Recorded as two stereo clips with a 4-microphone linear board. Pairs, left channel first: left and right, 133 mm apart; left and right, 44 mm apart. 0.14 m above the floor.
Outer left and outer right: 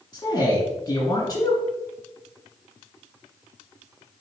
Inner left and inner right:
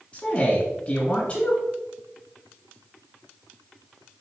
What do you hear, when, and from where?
0.1 s a man speaking: 30° left (ahead or behind), 1.8 m